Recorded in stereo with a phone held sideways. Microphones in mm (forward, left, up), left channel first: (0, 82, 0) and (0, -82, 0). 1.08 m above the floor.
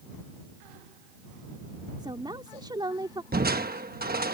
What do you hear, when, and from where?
2.0 s a woman speaking: 25° right (ahead or behind)
3.3 s crushing: 65° right (ahead or behind)